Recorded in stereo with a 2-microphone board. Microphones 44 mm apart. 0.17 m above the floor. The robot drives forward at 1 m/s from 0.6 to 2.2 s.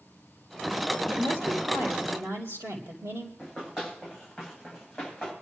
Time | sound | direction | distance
1.1 | a woman speaking | 70° right (ahead or behind) | 4.5 m
3.4 | running footsteps | centre (ahead or behind) | 7.5 m